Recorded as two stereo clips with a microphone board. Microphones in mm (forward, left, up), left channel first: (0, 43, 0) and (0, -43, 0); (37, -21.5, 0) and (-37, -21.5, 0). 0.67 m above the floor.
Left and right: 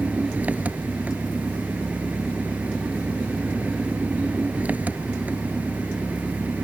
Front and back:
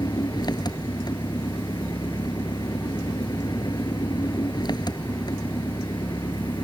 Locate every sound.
0.0 s an engine running: 15° right